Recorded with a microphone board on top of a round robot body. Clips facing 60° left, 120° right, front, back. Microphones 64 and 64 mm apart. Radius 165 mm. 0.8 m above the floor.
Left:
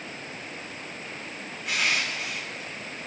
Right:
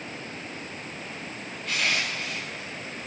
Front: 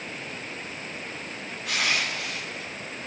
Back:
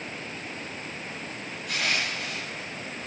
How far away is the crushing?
About 2 m.